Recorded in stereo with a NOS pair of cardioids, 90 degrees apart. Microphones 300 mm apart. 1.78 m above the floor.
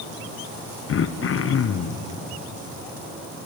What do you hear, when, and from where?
0.9 s throat clearing: 45° left, 1.0 m